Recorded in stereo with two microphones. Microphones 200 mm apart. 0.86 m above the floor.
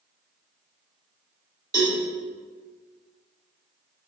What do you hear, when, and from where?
1.7 s a cowbell: 20° right (ahead or behind), 1.4 m